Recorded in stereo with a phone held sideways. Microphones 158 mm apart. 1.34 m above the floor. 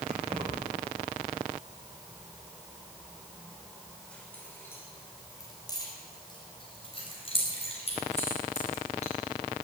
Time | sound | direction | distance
0.1 | keys jangling | 45° right (ahead or behind) | 4 m